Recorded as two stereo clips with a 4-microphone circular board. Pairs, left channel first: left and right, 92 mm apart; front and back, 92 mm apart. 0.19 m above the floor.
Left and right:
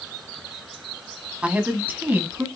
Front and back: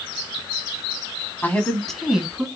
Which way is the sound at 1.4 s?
35° right.